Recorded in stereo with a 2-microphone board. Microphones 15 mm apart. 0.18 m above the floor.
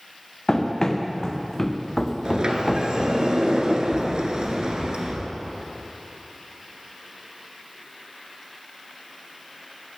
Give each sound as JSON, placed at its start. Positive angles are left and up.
{"t": 0.5, "sound": "running footsteps", "side_deg": 35, "distance_m": 2.0}
{"t": 2.2, "sound": "a sliding door", "side_deg": -60, "distance_m": 1.7}